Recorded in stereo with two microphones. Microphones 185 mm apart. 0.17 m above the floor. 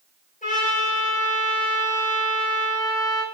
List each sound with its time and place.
0.4 s a trumpet: 45° left (ahead or behind), 3 m